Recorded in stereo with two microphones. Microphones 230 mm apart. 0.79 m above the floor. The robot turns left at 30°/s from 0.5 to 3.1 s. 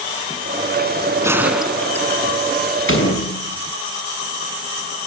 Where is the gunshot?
165° right, 1.7 m; by 2.3 s 165° left, 1.7 m.